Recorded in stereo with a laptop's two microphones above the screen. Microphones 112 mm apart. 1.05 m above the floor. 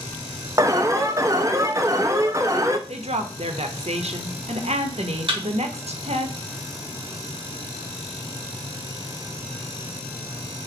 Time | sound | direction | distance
0.6 | an alarm | 30° right (ahead or behind) | 0.6 m
2.9 | a woman speaking | 70° right (ahead or behind) | 0.9 m
5.3 | a thud | 50° right (ahead or behind) | 3 m